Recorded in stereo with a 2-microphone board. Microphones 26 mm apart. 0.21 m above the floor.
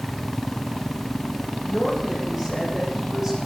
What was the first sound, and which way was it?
A woman speaking, 15° right (ahead or behind).